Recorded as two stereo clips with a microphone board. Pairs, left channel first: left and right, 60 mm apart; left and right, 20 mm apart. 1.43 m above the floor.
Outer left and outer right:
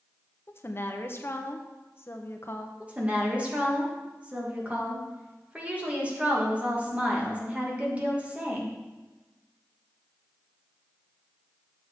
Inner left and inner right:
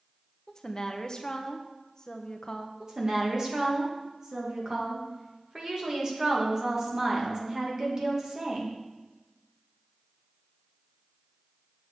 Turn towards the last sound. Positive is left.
turn(degrees=-25)  # may be behind; listen again after turning